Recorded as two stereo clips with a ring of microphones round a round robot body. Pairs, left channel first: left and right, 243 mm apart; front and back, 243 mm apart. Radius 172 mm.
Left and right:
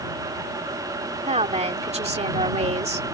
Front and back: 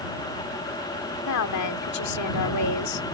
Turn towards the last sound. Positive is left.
turn(degrees=-25)